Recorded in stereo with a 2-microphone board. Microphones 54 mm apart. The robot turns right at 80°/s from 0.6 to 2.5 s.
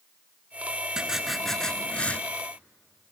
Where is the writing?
15° right (ahead or behind), 0.6 m; by 2.2 s 25° left (ahead or behind), 0.6 m.